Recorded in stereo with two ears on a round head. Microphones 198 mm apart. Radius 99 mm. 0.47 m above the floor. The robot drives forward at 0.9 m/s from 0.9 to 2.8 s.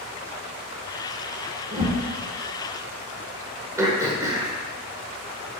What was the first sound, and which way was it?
A whoosh, 30° right (ahead or behind).